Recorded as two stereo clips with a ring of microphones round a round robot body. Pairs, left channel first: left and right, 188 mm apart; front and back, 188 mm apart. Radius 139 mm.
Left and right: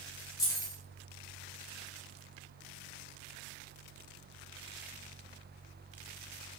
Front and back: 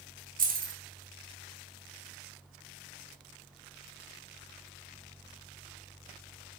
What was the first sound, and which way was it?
Keys jangling, 160° left.